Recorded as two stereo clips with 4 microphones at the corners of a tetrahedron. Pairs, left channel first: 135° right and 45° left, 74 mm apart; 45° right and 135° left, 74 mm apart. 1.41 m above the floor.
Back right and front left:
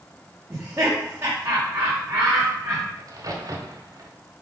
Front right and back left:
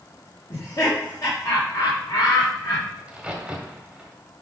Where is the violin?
No violin in this recording.